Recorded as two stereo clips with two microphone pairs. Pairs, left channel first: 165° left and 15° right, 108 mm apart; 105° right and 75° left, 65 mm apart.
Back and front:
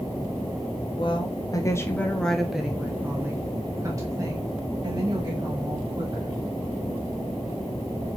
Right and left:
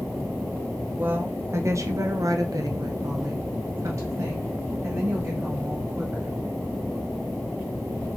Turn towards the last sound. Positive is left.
turn(degrees=30)